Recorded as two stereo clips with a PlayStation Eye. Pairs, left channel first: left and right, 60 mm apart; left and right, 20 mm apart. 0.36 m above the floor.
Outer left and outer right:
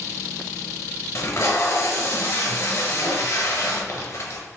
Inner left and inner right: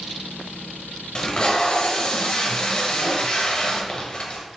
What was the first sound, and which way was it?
Tape being pulled, 60° left (ahead or behind).